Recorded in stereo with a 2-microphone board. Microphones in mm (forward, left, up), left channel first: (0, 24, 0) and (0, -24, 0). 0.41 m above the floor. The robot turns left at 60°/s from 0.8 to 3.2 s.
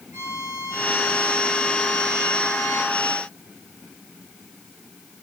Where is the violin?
105° right, 8 m; by 2.9 s 130° left, 8 m.